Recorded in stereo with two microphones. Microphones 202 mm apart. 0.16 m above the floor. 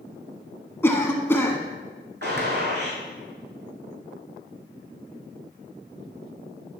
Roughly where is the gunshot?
Right.